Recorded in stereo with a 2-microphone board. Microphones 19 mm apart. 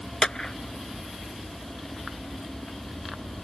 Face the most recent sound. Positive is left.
turn(degrees=35)  # may be behind; listen again after turning